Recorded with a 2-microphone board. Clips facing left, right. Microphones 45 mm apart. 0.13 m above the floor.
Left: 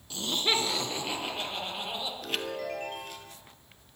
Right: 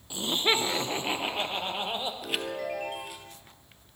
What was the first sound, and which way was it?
Laughter, 15° right (ahead or behind).